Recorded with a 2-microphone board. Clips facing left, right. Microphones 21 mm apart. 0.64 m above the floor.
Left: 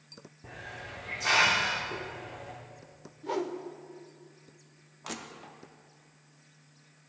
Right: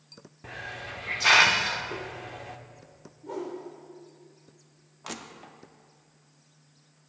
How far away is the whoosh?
About 0.6 m.